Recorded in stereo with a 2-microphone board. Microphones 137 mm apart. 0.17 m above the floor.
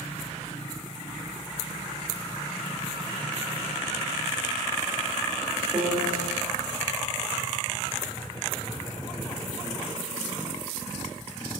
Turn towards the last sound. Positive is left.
turn(degrees=-40)  # may be behind; listen again after turning